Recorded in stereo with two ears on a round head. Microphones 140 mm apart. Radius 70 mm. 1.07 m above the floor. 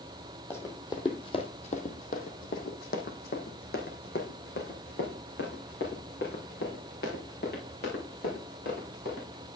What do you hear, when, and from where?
0.5 s running footsteps: 15° left (ahead or behind), 1.9 m; by 9.5 s 65° left (ahead or behind), 8 m